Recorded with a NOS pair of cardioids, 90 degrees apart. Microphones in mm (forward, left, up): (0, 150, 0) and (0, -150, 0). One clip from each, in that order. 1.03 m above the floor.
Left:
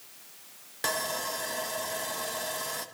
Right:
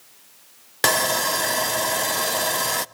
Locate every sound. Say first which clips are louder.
0.8 s sawing: right 11 dB; 60° right, 0.7 m